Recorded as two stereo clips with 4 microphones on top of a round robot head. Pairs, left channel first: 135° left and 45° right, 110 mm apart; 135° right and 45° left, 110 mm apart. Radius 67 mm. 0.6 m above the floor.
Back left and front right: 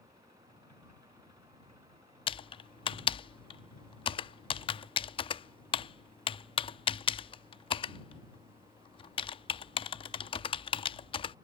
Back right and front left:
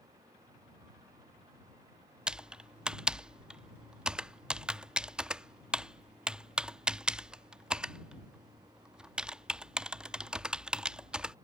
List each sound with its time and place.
2.3 s typing on a keyboard: 125° left